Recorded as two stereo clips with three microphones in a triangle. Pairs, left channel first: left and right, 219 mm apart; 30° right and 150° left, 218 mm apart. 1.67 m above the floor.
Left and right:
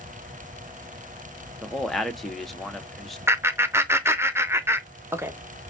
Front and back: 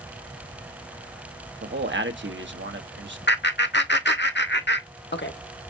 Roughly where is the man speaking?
Behind.